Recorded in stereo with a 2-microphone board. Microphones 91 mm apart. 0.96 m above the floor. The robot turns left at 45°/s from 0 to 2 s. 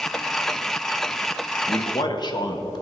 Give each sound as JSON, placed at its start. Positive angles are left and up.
{"t": 1.7, "sound": "a man speaking", "side_deg": 45, "distance_m": 1.3}